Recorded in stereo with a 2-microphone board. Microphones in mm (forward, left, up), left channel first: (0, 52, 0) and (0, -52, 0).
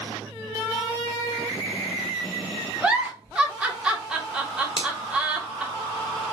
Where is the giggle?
10° right (ahead or behind), 1.3 m.